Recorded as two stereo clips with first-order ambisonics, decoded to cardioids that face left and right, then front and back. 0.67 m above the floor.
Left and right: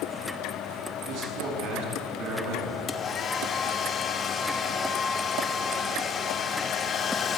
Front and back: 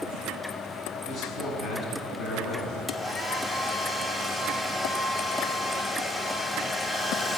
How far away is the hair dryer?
About 1.2 m.